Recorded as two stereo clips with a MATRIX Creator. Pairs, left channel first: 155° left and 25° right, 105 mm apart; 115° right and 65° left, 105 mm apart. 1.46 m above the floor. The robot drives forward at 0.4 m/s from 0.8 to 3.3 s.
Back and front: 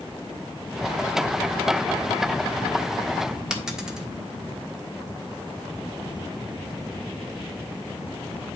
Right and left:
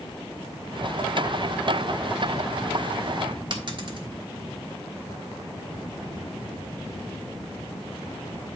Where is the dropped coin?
60° left, 1.4 m.